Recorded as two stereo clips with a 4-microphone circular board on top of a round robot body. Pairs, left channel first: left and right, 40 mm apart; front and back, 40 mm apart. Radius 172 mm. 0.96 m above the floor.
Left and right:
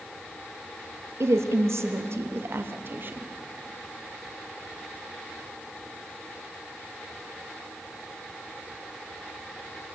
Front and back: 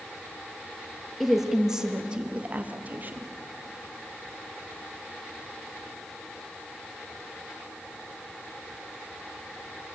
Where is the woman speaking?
90° right, 2 m; by 3.3 s 135° right, 2.5 m.